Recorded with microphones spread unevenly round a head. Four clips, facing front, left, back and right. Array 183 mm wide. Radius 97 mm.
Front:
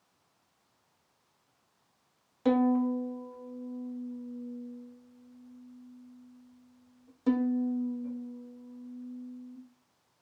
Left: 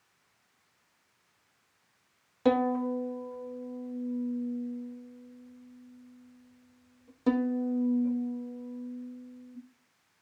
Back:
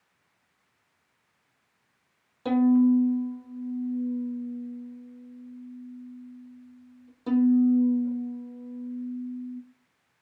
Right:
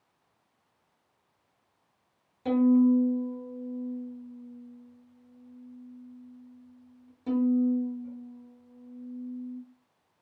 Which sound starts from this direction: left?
A violin, at 2.5 s.